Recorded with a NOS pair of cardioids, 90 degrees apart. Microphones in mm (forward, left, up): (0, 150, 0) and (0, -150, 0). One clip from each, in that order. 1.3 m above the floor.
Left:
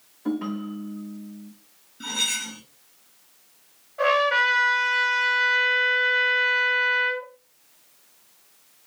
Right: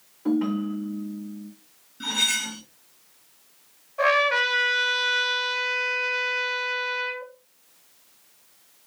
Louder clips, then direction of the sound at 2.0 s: Right 2 dB; 20° right.